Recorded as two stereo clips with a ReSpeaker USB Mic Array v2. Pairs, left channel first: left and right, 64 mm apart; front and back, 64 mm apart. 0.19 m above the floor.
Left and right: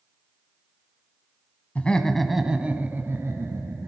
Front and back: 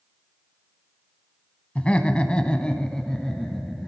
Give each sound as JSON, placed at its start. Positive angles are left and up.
{"t": 1.8, "sound": "laughter", "azimuth_deg": 50, "distance_m": 1.3}